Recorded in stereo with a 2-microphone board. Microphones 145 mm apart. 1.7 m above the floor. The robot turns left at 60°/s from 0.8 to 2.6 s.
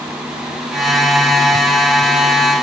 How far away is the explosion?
I don't hear an explosion.